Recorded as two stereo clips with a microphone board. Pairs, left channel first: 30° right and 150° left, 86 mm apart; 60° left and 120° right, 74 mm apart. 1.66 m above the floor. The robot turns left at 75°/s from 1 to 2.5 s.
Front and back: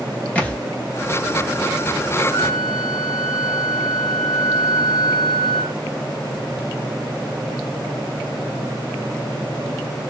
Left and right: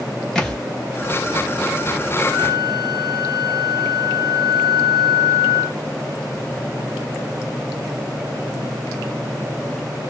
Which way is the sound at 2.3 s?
105° right.